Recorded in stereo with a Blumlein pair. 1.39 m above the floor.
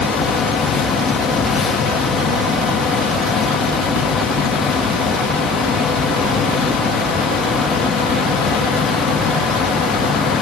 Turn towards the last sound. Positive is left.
turn(degrees=20)